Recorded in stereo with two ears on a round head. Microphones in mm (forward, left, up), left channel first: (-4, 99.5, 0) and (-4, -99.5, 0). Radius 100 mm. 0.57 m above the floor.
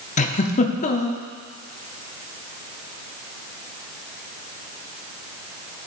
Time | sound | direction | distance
0.2 | a giggle | 35° left (ahead or behind) | 0.7 m